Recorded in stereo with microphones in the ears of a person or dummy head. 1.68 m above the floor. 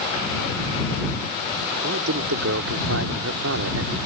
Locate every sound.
1.8 s a man speaking: 85° right